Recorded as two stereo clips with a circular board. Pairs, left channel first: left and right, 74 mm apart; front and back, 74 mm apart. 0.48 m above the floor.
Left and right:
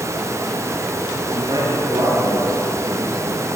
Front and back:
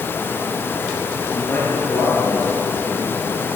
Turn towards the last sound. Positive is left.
turn(degrees=-60)